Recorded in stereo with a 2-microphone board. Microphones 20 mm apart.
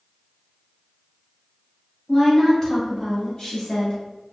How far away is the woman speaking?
About 1.5 m.